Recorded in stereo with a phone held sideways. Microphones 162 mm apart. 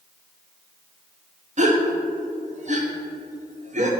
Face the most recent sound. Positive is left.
turn(degrees=-50)  # may be behind; listen again after turning